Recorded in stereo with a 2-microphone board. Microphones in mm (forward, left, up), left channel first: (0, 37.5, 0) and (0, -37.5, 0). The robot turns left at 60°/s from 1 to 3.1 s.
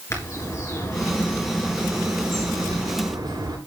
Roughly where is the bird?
Ahead left.